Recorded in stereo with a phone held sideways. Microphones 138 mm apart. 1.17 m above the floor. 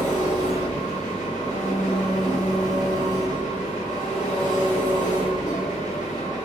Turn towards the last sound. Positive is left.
turn(degrees=65)  # may be behind; listen again after turning